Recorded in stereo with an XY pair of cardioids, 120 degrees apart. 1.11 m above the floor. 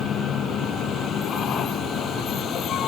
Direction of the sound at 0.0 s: 55° left.